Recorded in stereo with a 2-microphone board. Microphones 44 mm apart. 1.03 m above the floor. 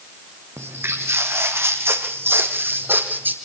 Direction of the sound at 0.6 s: 75° right (ahead or behind).